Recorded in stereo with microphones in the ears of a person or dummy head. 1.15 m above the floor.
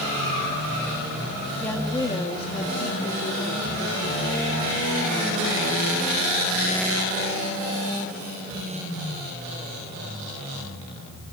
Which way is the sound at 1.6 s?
5° left (ahead or behind).